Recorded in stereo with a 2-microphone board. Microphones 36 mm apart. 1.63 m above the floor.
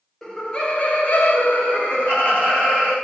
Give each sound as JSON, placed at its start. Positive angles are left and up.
{"t": 0.2, "sound": "laughter", "side_deg": 15, "distance_m": 0.6}